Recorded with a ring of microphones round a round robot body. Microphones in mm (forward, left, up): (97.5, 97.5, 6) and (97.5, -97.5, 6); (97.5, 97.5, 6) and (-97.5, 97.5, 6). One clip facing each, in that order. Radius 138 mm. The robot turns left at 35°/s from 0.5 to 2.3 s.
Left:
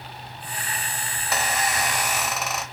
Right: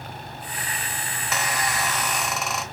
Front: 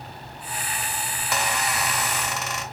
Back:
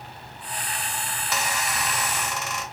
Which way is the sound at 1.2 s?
40° left.